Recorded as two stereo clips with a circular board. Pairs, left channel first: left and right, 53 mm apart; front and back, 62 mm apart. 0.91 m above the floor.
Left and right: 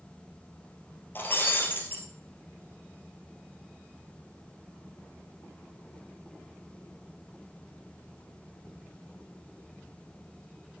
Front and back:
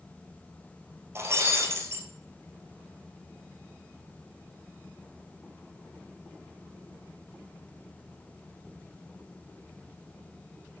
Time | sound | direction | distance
1.1 | breaking glass | 135° left | 2.5 m